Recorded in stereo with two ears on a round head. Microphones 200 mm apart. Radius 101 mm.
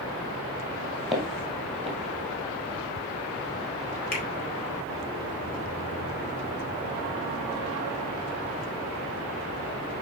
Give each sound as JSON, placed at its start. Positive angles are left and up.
{"t": 1.1, "sound": "footsteps", "side_deg": 0, "distance_m": 2.0}
{"t": 4.1, "sound": "a finger snap", "side_deg": 45, "distance_m": 3.0}